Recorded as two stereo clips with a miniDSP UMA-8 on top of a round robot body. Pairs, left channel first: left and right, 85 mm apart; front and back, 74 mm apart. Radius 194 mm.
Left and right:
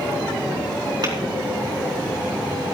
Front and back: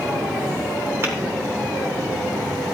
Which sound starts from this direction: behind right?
Tapping, at 1.0 s.